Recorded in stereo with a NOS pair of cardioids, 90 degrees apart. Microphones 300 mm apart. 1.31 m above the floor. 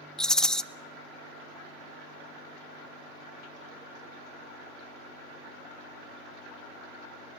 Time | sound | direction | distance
0.2 | a rattle | straight ahead | 0.7 m